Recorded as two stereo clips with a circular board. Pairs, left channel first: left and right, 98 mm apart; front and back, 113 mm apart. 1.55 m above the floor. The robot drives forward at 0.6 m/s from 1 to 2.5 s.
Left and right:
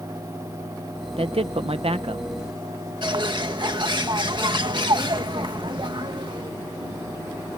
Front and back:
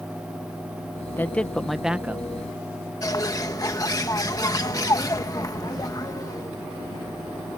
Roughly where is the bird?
Ahead right.